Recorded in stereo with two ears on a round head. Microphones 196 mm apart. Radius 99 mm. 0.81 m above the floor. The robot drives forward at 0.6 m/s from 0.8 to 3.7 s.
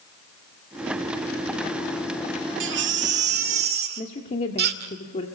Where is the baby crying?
60° right (ahead or behind), 2.0 m; by 5.0 s 50° right (ahead or behind), 2.5 m.